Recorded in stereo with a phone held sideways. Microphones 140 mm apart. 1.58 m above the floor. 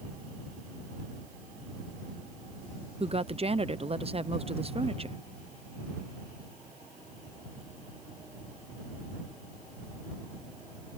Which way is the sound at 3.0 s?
45° right (ahead or behind).